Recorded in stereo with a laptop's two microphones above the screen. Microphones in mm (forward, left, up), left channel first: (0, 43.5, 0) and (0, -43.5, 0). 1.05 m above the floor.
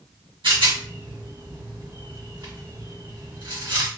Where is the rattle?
70° right (ahead or behind), 1.7 m.